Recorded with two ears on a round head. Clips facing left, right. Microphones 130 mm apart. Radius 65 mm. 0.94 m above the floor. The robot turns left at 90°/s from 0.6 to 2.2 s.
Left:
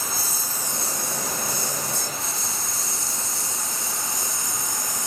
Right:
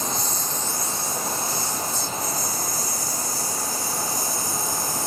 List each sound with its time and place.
0.0 s a lawn mower: 5° left (ahead or behind); by 5.1 s 15° left (ahead or behind)